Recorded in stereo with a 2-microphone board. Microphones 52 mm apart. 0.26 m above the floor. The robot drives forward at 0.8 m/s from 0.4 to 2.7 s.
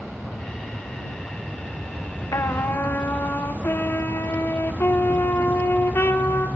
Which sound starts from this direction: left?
A trumpet, at 2.3 s.